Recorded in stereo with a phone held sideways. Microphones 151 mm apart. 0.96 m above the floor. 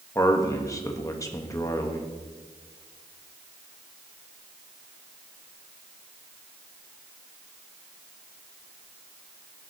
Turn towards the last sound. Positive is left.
turn(degrees=20)  # may be behind; listen again after turning